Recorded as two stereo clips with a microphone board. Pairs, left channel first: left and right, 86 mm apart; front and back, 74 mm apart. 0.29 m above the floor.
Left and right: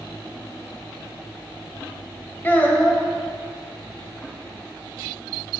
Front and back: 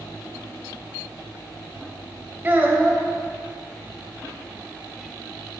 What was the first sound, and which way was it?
A child speaking, 140° left.